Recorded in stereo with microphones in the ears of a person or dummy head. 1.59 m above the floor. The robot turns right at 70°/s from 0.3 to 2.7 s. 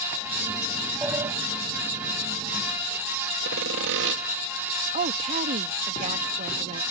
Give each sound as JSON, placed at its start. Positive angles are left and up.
{"t": 1.0, "sound": "a sliding door", "side_deg": -5}
{"t": 3.5, "sound": "sawing", "side_deg": -70}
{"t": 4.9, "sound": "a woman speaking", "side_deg": -40}